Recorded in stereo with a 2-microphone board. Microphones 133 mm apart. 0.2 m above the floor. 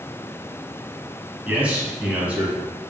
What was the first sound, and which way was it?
A man speaking, 10° right (ahead or behind).